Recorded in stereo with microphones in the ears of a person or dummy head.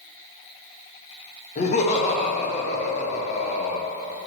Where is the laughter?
35° left (ahead or behind), 1.2 m.